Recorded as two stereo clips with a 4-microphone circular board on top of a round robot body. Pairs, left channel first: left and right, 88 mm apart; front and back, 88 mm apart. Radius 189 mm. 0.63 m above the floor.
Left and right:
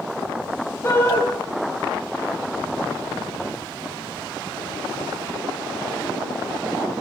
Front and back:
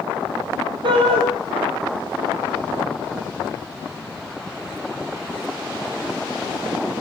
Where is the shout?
155° left, 4.5 m.